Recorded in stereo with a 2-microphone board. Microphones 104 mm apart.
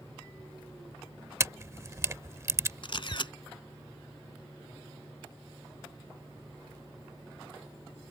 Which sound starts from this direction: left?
A camera shutter, at 2.8 s.